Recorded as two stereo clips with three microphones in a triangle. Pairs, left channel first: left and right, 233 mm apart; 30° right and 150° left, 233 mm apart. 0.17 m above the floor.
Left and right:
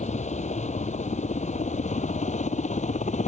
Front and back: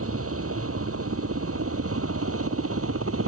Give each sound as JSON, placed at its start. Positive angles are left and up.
{"t": 0.0, "sound": "a helicopter", "azimuth_deg": 150}